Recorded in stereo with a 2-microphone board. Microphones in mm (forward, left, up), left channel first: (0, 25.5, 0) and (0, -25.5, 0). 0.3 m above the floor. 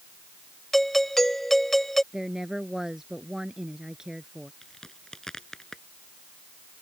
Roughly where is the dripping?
I don't hear dripping.